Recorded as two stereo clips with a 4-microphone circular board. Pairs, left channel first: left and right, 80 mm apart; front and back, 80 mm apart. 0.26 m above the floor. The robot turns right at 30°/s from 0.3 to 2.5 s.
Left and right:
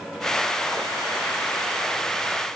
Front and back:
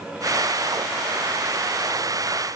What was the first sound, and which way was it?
Only background noise.